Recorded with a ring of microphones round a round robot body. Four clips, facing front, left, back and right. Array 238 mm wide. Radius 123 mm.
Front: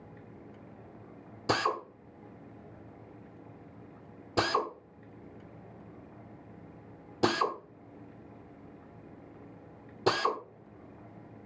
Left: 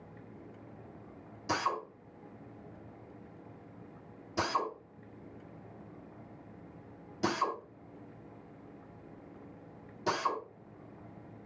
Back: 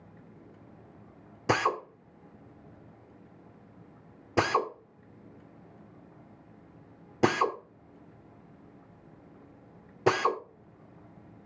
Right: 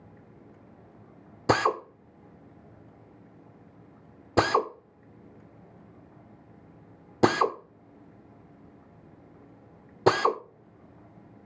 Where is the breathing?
I don't hear breathing.